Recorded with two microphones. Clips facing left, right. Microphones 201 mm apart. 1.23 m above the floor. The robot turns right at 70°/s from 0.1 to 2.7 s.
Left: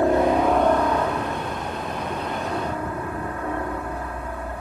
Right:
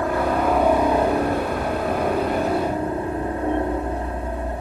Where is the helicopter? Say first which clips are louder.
Left 3 dB; 150° left; by 4.6 s 30° right.